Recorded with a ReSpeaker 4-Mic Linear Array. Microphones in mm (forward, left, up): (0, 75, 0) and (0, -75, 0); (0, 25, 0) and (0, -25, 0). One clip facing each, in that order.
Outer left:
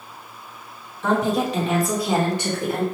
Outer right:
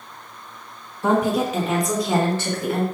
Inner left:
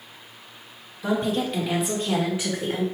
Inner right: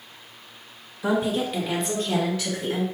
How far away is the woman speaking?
About 1.8 m.